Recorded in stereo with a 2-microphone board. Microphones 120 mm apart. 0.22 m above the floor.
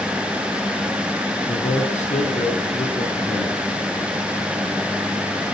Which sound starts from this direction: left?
A man speaking, at 1.5 s.